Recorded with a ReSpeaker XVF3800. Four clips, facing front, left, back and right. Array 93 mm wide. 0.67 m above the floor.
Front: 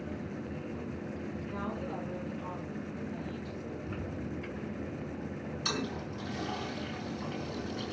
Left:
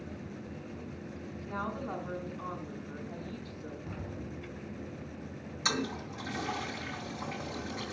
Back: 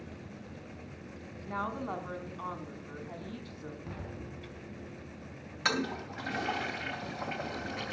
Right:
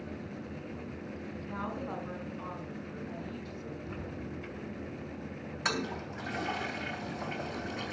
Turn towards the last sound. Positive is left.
turn(degrees=-150)